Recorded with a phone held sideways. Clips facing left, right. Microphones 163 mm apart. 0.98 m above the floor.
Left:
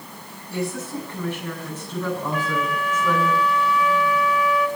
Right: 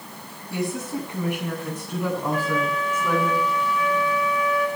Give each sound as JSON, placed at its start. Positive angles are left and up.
{"t": 0.5, "sound": "a woman speaking", "side_deg": -20, "distance_m": 8.0}
{"t": 2.3, "sound": "a flute", "side_deg": -45, "distance_m": 3.5}